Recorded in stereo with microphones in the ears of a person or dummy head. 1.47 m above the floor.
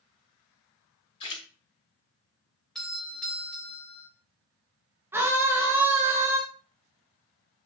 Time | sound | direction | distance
1.2 | a splash | 30° left (ahead or behind) | 2.5 m
2.8 | a doorbell | 5° left (ahead or behind) | 2 m
5.1 | a scream | 10° right (ahead or behind) | 1.6 m